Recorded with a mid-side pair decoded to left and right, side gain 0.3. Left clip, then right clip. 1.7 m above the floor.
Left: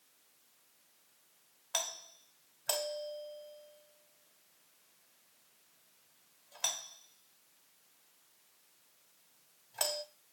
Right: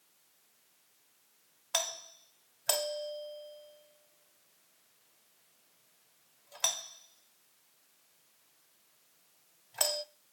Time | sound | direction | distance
1.7 | a doorbell | 60° right | 1.1 m